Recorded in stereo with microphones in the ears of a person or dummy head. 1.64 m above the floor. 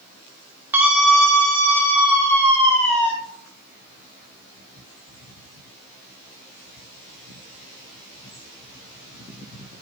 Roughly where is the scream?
Centre.